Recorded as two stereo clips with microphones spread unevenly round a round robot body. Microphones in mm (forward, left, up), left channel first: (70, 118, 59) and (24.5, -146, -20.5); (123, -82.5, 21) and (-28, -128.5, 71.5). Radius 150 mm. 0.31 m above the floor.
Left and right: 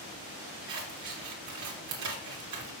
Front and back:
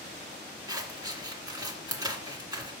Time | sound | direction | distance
0.7 | scissors | 90° right | 1.7 m